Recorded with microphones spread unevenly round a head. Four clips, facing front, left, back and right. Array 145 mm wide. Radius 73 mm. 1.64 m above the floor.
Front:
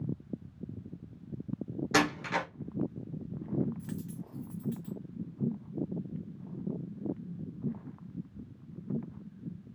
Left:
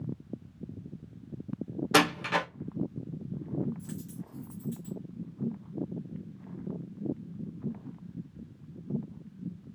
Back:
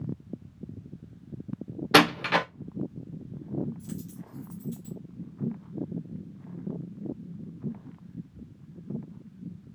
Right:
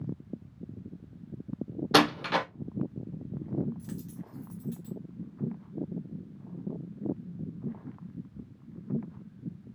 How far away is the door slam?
About 0.6 m.